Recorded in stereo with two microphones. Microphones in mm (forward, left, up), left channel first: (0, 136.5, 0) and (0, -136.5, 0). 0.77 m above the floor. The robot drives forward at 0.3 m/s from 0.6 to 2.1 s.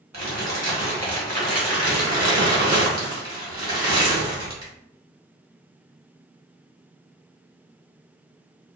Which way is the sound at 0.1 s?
75° right (ahead or behind).